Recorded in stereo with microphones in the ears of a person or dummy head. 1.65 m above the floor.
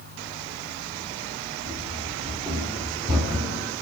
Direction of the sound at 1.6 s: 10° right (ahead or behind).